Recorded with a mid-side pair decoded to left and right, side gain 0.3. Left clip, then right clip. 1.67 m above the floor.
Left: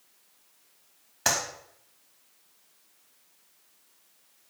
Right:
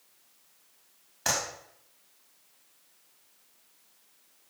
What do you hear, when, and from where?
1.2 s a clap: 55° left, 3.5 m